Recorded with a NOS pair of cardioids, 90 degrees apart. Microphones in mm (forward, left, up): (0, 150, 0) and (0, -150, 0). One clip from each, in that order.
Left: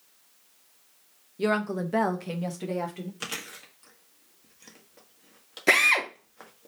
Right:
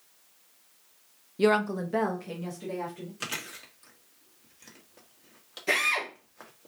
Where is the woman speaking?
25° right, 0.6 m; by 3.1 s 50° left, 1.7 m.